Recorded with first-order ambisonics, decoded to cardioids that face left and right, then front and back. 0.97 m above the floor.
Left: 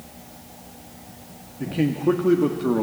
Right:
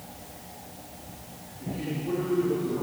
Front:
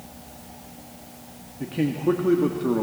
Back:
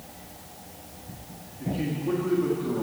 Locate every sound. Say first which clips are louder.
1.6 s a man speaking: left 11 dB, front 6 dB; 60° left, 1.7 m